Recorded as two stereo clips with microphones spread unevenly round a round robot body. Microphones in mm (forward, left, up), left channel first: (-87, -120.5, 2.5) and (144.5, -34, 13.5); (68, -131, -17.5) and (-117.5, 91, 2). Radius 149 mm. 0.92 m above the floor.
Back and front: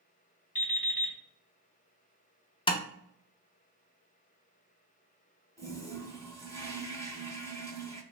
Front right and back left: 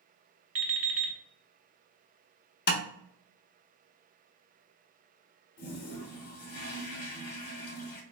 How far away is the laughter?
I don't hear laughter.